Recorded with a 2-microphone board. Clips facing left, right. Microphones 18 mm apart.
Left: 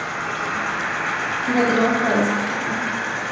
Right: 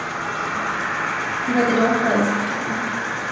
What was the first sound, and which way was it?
An insect, 75° left (ahead or behind).